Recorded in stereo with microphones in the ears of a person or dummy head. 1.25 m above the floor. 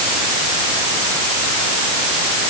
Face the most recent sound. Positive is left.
No sound to turn to.